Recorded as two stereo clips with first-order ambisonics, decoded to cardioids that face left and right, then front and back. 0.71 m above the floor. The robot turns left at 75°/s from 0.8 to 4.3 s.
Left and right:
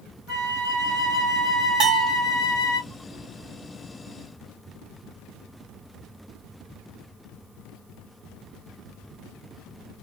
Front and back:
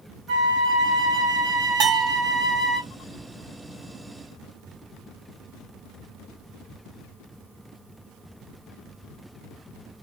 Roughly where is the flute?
Behind right.